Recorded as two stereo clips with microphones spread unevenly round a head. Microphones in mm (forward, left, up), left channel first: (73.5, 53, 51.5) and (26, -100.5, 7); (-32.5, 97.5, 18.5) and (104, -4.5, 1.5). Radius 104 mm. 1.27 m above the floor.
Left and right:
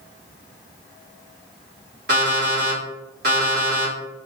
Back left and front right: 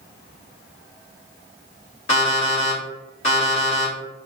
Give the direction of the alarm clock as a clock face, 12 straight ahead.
5 o'clock.